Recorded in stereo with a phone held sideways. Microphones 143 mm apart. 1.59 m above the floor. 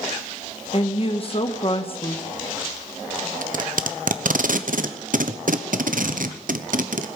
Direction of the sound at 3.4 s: 70° right (ahead or behind).